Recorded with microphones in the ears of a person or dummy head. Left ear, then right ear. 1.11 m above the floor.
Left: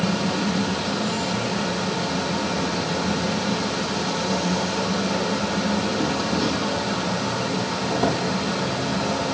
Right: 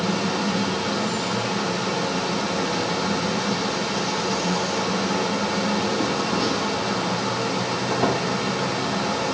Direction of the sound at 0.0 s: 10° right (ahead or behind).